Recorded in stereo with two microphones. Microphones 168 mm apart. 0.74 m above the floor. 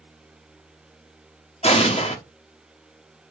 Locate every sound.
1.6 s an explosion: 40° left (ahead or behind), 1.1 m